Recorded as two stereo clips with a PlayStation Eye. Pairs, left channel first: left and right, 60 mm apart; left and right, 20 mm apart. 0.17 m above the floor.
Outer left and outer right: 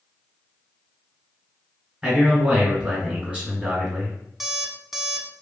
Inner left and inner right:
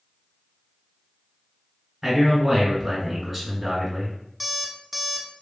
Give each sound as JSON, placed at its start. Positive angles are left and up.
{"t": 2.0, "sound": "a man speaking", "side_deg": -20, "distance_m": 1.6}
{"t": 4.4, "sound": "an alarm clock", "side_deg": -5, "distance_m": 0.5}